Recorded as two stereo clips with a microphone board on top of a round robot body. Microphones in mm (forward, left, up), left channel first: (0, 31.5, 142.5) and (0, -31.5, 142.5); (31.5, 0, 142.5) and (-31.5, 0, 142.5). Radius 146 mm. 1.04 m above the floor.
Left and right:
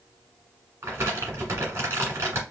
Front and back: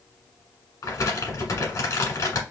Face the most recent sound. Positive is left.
turn(degrees=-40)